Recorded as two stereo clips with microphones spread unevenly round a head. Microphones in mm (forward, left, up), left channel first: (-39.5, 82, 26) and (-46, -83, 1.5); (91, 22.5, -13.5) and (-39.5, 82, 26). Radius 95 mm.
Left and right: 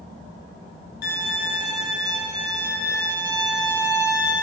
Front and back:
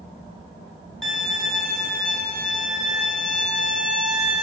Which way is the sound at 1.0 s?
55° left.